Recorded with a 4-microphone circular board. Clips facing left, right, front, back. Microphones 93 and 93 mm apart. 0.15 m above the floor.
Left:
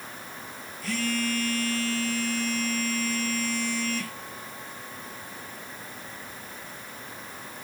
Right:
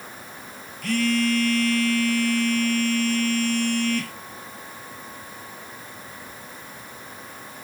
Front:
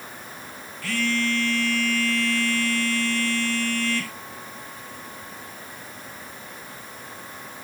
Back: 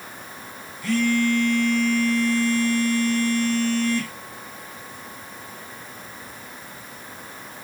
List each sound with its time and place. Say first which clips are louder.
0.8 s a phone buzzing: right 7 dB, back 5 dB; 110° right, 1.5 m